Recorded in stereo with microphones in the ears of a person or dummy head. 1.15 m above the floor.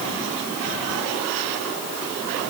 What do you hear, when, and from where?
Only background noise.